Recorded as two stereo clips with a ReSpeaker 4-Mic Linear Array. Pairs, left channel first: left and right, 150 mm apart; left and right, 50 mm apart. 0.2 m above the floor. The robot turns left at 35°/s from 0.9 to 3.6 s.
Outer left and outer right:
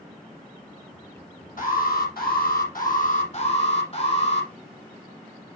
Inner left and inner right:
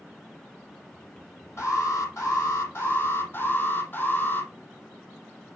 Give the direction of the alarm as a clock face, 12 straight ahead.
8 o'clock.